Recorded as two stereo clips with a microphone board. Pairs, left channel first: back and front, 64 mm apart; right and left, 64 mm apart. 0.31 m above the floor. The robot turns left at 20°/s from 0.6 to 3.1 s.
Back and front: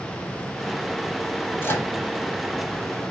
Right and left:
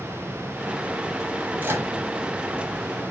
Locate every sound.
1.6 s a microwave: 140° left, 1.2 m; by 1.9 s 130° left, 1.2 m